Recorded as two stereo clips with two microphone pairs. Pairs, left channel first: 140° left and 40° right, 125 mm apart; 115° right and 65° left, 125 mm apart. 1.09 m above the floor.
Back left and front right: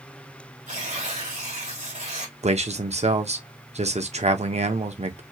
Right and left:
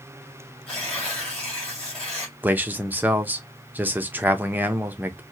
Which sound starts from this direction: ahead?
A man speaking, at 2.4 s.